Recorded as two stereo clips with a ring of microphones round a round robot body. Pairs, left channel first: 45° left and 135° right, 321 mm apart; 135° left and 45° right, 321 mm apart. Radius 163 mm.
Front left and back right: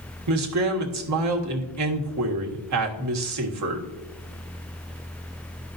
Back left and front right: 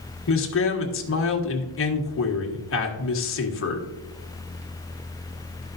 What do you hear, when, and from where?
0.3 s a man speaking: 175° right, 1.5 m